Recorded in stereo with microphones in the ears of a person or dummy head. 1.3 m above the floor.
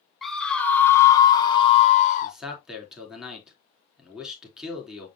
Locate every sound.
0.2 s a scream: centre (ahead or behind), 1.5 m; by 2.4 s 45° left (ahead or behind), 1.3 m
2.2 s a man speaking: centre (ahead or behind), 3 m